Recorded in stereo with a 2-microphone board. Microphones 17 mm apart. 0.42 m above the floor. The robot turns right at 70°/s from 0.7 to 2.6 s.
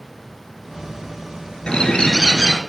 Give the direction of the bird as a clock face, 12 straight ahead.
9 o'clock.